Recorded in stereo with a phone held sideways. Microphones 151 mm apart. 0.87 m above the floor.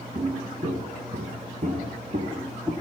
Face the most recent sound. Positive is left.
turn(degrees=-25)  # may be behind; listen again after turning